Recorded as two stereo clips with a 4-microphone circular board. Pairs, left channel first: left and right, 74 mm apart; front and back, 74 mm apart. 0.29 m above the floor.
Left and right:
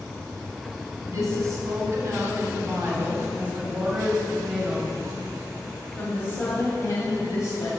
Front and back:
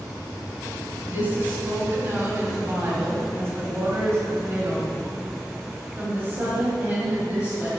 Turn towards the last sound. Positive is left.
turn(degrees=115)